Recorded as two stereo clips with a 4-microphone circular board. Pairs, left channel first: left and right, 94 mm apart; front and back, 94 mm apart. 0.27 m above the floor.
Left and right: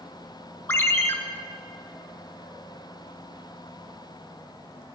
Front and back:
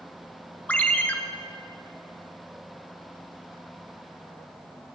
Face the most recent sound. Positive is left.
turn(degrees=55)